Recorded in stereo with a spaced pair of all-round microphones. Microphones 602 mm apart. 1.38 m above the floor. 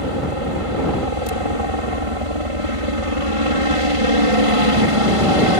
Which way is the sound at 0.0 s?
60° right (ahead or behind).